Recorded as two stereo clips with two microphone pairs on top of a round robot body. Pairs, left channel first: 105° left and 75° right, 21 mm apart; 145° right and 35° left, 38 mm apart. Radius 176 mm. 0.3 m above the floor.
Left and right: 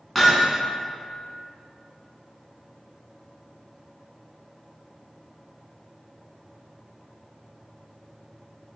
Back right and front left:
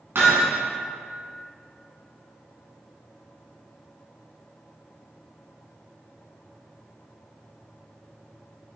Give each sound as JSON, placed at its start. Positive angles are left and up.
{"t": 0.1, "sound": "hammering", "azimuth_deg": 25, "distance_m": 2.0}